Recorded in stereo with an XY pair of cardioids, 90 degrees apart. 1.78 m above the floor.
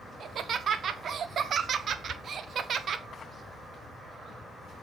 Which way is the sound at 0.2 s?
65° right.